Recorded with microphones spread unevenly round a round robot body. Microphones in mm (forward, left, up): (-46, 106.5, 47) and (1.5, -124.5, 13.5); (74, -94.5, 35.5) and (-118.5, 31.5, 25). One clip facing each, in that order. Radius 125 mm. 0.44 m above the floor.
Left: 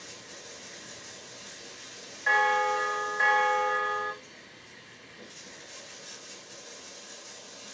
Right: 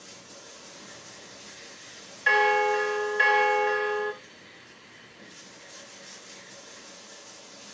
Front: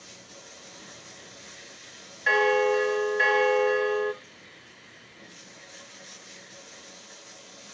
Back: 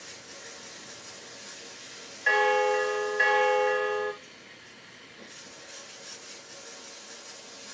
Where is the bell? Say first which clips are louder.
Right 6 dB, front 3 dB; 125° right, 0.6 m.